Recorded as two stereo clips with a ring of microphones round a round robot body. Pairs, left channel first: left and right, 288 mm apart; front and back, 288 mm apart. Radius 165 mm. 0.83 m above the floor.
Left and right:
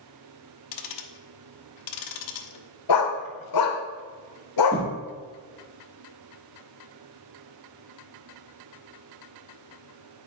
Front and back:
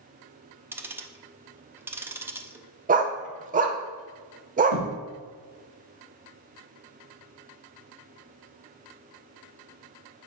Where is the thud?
175° left, 4 m.